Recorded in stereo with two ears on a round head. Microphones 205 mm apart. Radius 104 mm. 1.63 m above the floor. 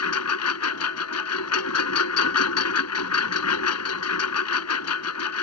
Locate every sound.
0.0 s a lawn mower: 80° left